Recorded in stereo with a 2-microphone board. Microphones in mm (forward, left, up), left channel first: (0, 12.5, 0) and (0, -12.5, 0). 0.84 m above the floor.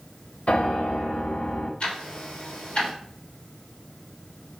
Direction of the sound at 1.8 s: 45° left (ahead or behind).